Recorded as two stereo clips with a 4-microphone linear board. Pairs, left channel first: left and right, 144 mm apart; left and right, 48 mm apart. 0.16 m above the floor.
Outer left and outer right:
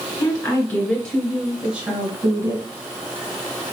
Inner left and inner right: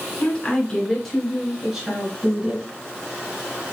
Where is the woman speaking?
25° left (ahead or behind), 2 m; by 2.7 s 30° right (ahead or behind), 2.0 m.